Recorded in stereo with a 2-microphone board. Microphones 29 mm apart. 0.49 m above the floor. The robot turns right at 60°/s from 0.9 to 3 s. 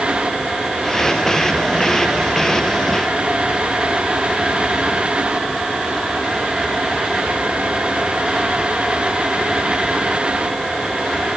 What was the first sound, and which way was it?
Only background noise.